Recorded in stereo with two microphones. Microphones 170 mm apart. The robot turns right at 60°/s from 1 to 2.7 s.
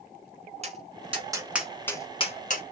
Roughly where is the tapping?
Right.